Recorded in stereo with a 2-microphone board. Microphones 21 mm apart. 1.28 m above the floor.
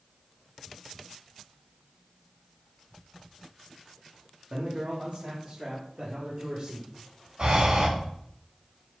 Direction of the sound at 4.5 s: 70° right (ahead or behind).